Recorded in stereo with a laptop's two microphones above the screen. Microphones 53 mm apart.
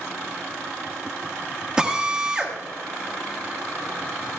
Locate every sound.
1.8 s a drill: 15° right (ahead or behind), 1.4 m